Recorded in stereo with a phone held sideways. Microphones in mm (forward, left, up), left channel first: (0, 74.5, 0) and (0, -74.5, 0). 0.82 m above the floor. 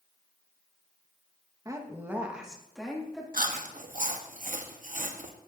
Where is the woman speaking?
25° right (ahead or behind), 1.0 m; by 3.2 s 5° left (ahead or behind), 2 m.